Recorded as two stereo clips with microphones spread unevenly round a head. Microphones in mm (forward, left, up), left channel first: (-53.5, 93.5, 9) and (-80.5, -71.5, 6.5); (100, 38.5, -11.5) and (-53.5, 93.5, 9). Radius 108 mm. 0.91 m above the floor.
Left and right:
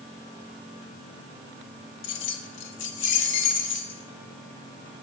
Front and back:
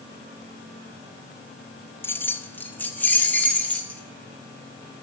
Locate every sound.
2.0 s keys jangling: 55° left, 1.2 m; by 4.0 s 60° left, 3 m